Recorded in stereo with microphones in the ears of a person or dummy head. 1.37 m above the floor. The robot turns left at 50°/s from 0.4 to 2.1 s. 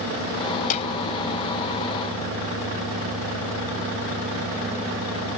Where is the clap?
40° left (ahead or behind); by 0.9 s 30° left (ahead or behind).